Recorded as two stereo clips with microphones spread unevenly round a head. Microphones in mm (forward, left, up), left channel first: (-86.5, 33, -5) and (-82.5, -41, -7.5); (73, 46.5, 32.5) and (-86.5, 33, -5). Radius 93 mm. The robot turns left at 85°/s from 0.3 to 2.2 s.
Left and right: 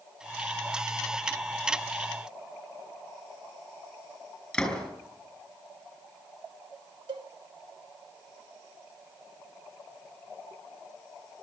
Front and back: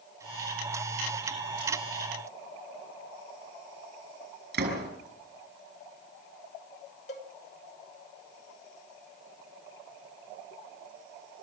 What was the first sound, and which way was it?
A door slam, 175° left.